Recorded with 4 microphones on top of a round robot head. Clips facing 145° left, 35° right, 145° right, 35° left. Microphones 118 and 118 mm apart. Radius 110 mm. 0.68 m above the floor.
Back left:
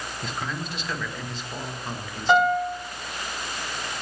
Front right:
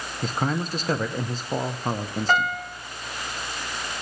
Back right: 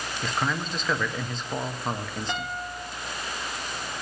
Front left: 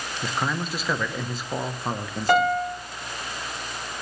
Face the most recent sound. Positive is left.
turn(degrees=65)